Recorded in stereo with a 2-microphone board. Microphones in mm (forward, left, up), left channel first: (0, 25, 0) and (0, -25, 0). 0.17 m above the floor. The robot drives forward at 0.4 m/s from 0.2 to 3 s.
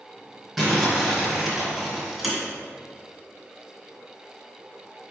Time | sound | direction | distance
0.6 | crumpling | centre (ahead or behind) | 1.7 m